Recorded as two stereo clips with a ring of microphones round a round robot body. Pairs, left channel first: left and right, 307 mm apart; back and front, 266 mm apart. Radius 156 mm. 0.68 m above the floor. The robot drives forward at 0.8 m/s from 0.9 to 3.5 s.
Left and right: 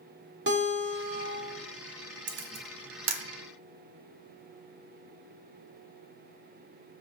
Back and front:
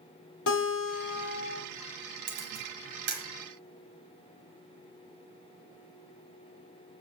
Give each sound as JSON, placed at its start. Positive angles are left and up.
{"t": 0.5, "sound": "a guitar", "azimuth_deg": -145, "distance_m": 2.0}
{"t": 2.3, "sound": "a camera shutter", "azimuth_deg": -40, "distance_m": 1.5}